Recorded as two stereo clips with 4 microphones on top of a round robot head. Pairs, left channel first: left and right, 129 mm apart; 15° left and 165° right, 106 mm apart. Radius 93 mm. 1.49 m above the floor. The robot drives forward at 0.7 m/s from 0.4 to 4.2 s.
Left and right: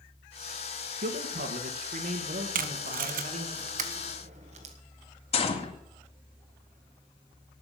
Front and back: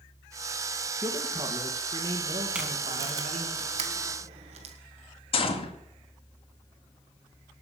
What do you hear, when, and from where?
1.0 s a man speaking: 95° right, 2 m; by 3.5 s 130° right, 3 m
2.5 s tape being pulled: 85° right, 1.2 m; by 4.8 s 130° right, 1.5 m
5.3 s a gunshot: 50° left, 2 m